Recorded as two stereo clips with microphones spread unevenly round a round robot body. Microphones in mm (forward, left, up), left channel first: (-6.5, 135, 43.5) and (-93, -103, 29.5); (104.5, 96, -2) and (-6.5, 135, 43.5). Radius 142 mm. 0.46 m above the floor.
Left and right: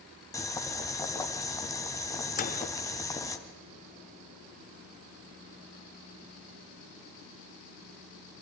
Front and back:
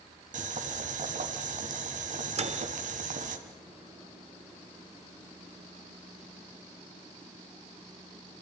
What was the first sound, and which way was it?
Boiling, 150° left.